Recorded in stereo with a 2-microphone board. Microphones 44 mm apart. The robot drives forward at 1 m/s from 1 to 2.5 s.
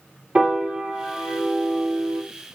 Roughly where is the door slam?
No door slam in this recording.